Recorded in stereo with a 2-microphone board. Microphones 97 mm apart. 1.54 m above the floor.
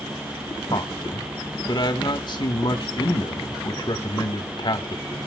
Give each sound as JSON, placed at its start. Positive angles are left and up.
{"t": 0.7, "sound": "a man speaking", "side_deg": 50, "distance_m": 1.6}